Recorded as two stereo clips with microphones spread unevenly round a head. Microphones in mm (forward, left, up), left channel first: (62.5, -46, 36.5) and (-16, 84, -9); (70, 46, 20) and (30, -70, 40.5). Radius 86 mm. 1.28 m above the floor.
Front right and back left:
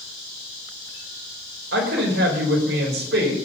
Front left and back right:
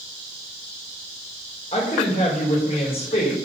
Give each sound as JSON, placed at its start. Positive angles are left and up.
{"t": 1.7, "sound": "a woman speaking", "azimuth_deg": 125, "distance_m": 5.0}